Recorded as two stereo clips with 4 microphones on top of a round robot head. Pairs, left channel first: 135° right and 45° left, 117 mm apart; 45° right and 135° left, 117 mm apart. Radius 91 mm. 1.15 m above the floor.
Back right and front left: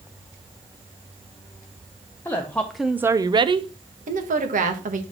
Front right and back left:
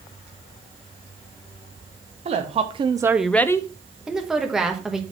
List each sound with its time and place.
2.2 s a woman speaking: 155° left, 0.9 m; by 3.7 s 10° left, 0.7 m
4.1 s a woman speaking: 45° left, 1.3 m